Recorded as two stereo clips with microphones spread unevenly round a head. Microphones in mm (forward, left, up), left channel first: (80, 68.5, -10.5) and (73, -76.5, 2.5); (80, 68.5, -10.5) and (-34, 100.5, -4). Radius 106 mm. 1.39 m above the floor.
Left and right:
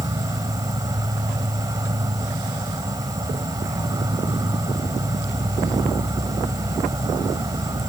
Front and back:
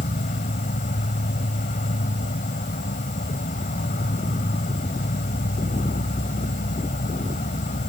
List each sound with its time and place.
0.0 s an insect: 30° right